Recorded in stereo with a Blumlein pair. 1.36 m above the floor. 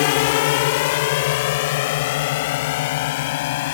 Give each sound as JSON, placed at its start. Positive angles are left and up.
{"t": 0.0, "sound": "a drone", "azimuth_deg": 50}